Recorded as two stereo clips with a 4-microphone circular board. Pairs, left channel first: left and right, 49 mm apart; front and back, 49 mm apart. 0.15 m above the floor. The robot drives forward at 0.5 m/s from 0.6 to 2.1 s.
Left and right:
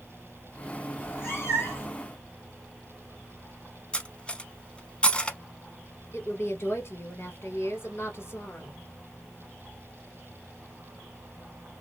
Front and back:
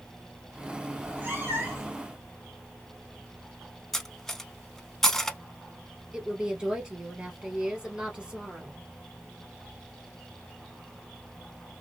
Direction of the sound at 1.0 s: 120° left.